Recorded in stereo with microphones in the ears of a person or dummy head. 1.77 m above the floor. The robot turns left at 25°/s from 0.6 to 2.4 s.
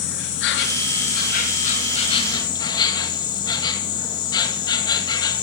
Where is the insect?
65° left, 2 m; by 5.4 s 20° left, 2 m.